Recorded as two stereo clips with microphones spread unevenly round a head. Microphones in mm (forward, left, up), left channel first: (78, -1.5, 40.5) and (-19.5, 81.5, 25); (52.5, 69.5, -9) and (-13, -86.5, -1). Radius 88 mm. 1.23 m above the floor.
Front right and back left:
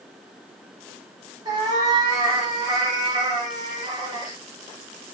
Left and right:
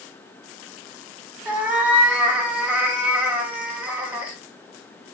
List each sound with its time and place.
1.4 s a cat meowing: 175° right, 0.7 m